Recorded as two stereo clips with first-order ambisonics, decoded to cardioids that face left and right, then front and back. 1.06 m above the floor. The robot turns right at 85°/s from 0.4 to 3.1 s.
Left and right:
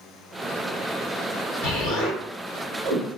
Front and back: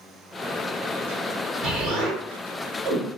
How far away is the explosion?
About 1.5 m.